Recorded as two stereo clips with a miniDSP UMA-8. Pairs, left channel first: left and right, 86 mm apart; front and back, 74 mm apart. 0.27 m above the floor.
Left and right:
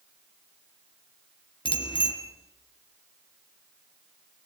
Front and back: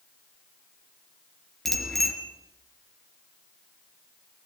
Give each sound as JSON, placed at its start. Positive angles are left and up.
{"t": 1.6, "sound": "a bicycle bell", "azimuth_deg": 85, "distance_m": 3.0}